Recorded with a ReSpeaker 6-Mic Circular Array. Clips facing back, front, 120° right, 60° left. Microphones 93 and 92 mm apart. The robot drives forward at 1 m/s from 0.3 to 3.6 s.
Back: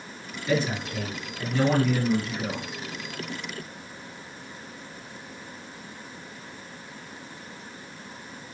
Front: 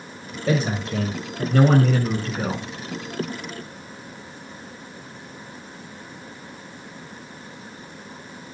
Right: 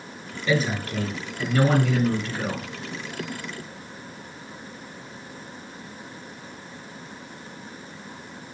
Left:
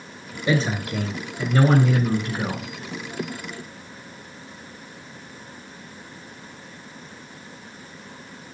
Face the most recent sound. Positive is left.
turn(degrees=-5)